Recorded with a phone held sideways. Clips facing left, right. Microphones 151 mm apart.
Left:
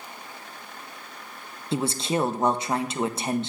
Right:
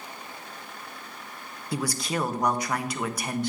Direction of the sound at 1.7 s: 25° left (ahead or behind).